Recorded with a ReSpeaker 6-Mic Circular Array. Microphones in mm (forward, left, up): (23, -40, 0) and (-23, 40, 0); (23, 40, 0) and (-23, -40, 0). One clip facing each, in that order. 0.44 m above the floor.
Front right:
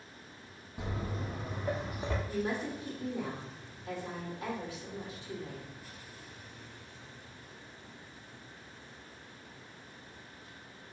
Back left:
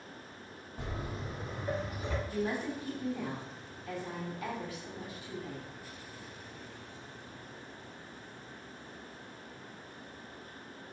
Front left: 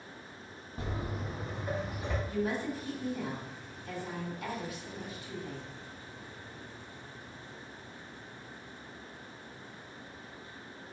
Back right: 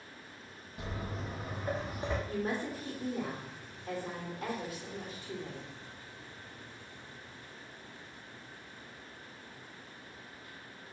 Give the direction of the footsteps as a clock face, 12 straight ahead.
11 o'clock.